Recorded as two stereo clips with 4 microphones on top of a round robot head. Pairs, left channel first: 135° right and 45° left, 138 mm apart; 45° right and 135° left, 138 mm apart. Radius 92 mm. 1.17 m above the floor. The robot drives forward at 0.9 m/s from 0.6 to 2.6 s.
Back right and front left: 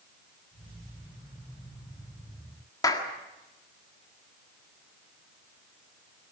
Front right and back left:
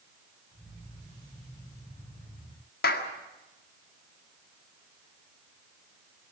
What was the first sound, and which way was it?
A clap, 65° right.